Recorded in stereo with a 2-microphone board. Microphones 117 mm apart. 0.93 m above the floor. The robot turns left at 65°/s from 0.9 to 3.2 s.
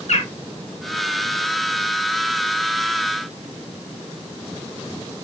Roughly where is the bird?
Left.